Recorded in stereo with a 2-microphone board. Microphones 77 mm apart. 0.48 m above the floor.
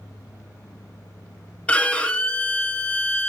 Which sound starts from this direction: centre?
A violin, at 1.7 s.